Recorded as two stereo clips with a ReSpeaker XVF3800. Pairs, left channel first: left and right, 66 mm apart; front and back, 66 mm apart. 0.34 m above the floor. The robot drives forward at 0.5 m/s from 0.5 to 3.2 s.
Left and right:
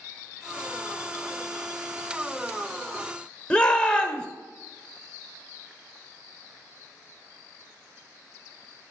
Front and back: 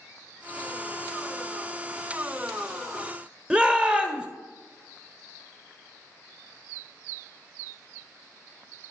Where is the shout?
140° left, 0.9 m.